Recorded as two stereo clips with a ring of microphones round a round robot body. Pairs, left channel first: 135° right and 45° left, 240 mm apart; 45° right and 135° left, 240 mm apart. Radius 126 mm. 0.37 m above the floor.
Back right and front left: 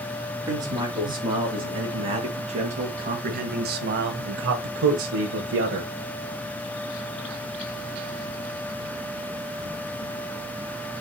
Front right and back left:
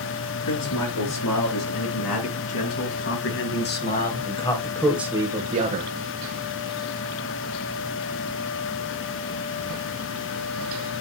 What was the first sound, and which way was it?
A man speaking, 30° right.